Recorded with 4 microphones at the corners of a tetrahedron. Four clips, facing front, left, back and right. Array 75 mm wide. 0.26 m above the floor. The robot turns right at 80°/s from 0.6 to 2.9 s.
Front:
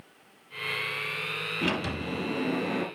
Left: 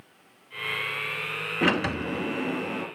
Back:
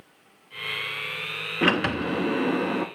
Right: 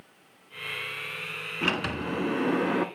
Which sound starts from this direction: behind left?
A sliding door, at 1.6 s.